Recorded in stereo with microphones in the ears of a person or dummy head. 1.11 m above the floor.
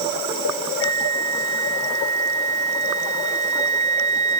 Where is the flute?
40° right (ahead or behind).